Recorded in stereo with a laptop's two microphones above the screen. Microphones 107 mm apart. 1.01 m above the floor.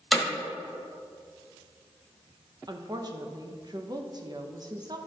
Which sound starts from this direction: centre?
Hammering, at 0.1 s.